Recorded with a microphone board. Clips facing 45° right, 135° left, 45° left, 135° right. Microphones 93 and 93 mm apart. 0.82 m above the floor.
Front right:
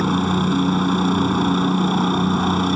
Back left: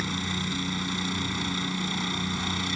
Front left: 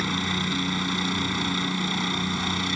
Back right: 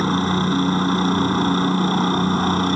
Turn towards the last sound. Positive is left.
turn(degrees=-85)